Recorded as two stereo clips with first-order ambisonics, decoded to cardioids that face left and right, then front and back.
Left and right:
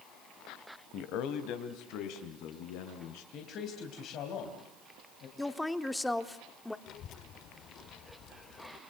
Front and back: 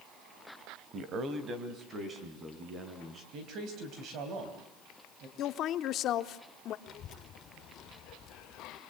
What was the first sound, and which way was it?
A man speaking, 130° left.